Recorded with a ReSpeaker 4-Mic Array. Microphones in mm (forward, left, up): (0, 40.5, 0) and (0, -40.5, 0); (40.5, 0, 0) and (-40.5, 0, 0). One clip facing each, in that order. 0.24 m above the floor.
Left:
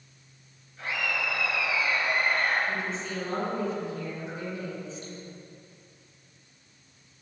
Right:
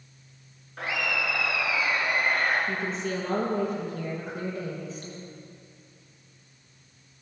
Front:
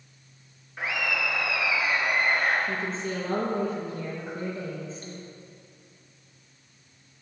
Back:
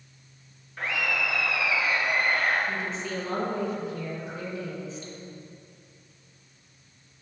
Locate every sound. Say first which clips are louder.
0.8 s laughter: right 2 dB, even; 80° right, 4 m; by 2.6 s 60° right, 3.5 m
2.7 s a woman speaking: right 2 dB, front 1 dB; 45° right, 5 m